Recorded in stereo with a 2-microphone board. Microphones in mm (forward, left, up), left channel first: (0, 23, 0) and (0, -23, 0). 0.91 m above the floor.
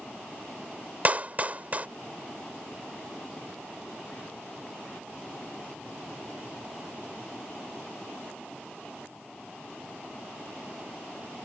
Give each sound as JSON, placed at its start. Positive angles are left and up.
{"t": 1.1, "sound": "a clap", "side_deg": -35}